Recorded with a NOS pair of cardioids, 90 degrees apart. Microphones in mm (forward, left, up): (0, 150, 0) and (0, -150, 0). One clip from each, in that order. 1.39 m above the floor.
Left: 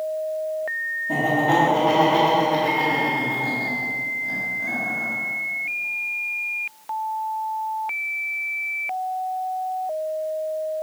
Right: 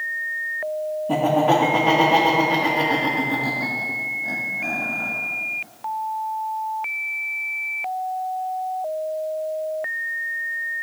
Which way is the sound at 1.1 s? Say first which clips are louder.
Right 2 dB; 45° right.